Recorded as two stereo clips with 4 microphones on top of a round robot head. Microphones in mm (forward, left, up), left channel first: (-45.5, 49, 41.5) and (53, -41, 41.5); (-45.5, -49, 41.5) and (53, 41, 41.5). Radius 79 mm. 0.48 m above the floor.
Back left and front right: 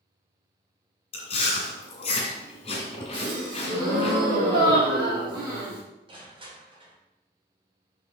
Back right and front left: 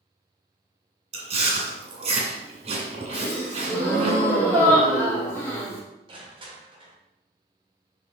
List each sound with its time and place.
1.1 s chewing: 90° left, 1.8 m
3.1 s a gasp: 60° right, 3.5 m
6.1 s crushing: straight ahead, 2 m